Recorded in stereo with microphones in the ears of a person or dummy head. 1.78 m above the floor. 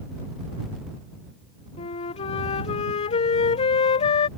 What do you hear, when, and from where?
1.8 s a flute: 40° left (ahead or behind)